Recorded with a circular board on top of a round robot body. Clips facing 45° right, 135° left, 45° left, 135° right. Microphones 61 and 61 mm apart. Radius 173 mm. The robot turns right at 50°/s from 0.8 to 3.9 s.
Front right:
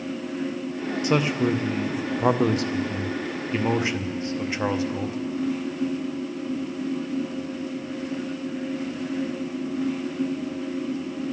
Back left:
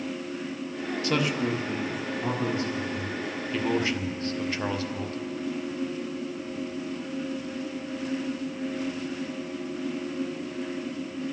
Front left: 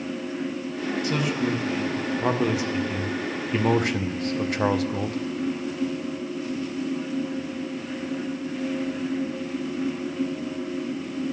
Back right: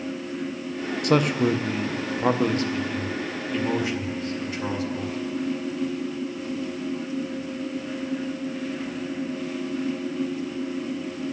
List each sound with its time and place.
1.0 s a man speaking: 115° right, 0.8 m; by 5.2 s 25° left, 0.8 m